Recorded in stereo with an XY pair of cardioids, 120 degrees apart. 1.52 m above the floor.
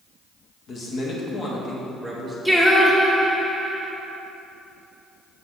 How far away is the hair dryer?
I don't hear a hair dryer.